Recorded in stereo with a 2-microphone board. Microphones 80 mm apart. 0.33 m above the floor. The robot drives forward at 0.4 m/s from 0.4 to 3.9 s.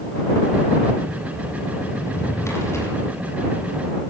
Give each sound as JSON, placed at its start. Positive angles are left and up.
{"t": 2.0, "sound": "a drawer", "side_deg": 35, "distance_m": 6.0}